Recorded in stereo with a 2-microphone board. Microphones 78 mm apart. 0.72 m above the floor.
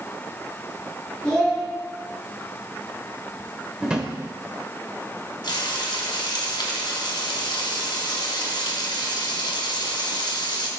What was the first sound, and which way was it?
A child speaking, 10° left (ahead or behind).